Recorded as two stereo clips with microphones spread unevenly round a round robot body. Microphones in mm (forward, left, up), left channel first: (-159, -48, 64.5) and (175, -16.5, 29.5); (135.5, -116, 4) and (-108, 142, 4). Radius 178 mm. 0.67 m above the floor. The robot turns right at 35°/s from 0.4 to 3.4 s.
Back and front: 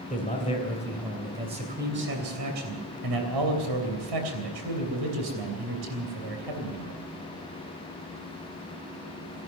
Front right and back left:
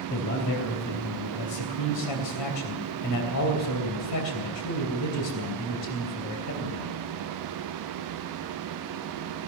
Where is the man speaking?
105° right, 3 m; by 7.0 s straight ahead, 3 m.